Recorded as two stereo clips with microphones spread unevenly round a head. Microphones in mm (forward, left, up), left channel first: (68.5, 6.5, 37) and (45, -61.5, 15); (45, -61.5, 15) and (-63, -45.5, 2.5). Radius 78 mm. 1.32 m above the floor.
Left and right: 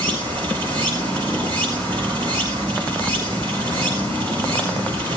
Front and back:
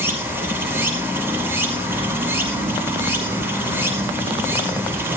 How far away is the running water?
About 5 m.